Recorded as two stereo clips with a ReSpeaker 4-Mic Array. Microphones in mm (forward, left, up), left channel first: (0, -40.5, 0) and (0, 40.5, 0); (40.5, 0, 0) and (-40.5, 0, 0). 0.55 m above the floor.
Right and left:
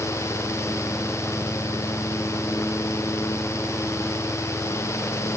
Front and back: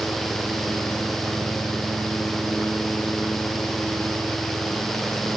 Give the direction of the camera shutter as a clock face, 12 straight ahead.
I don't hear a camera shutter.